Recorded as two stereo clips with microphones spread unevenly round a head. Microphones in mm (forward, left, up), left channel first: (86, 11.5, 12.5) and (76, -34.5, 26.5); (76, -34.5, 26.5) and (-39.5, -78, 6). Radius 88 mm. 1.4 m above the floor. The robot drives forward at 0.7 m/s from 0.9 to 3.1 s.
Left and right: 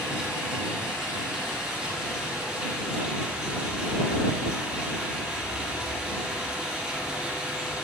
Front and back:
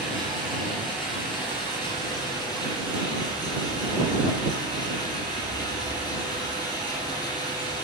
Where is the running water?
115° left, 4.5 m; by 7.8 s 130° left, 5.5 m.